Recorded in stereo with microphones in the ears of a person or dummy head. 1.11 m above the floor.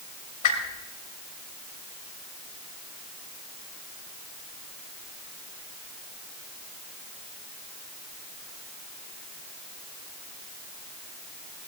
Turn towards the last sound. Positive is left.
turn(degrees=50)  # may be behind; listen again after turning